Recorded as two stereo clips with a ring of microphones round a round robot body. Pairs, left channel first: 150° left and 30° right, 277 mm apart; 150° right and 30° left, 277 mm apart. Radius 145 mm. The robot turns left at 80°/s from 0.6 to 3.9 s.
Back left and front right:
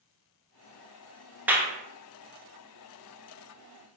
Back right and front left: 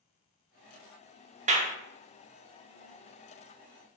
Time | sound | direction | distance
1.5 | a clap | 45° left | 0.8 m